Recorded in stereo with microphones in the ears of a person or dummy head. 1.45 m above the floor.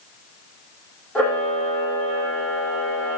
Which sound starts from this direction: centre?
A camera shutter, at 1.1 s.